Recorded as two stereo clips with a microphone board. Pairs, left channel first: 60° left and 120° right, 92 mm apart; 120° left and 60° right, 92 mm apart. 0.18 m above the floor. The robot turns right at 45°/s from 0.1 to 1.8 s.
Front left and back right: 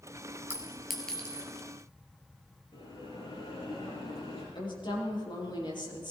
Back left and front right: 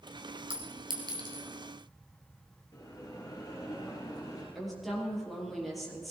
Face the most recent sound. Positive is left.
turn(degrees=30)